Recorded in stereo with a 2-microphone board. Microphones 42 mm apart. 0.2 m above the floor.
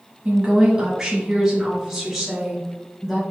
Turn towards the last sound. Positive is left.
turn(degrees=5)  # may be behind; listen again after turning